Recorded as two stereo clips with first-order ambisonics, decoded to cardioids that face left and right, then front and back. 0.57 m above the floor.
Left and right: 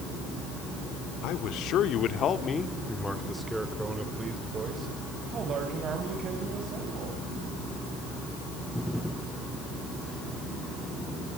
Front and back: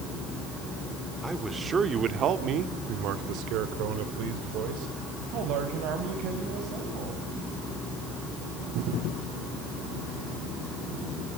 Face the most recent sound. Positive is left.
turn(degrees=-145)